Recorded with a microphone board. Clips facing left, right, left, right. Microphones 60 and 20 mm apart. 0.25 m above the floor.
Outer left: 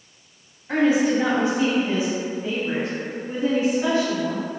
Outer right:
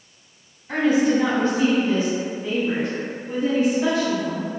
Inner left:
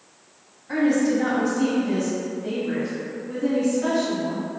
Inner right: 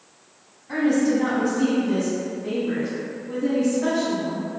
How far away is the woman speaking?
About 1.7 m.